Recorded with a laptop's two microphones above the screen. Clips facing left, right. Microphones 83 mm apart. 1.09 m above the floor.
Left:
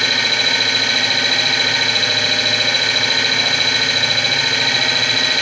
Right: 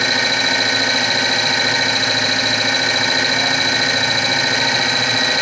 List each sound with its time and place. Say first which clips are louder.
0.0 s an engine running: right 2 dB; 20° right (ahead or behind), 3 m